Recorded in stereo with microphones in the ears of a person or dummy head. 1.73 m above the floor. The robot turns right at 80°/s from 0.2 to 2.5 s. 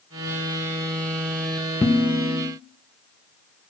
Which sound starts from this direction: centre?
Dishes clattering, at 1.8 s.